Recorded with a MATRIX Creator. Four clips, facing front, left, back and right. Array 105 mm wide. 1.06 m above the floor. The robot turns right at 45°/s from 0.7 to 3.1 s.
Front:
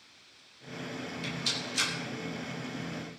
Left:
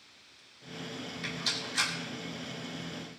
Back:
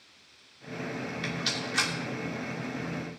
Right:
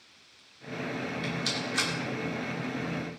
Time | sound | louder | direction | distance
1.2 | a rattle | right 6 dB, back 4 dB | 175° left | 2.5 m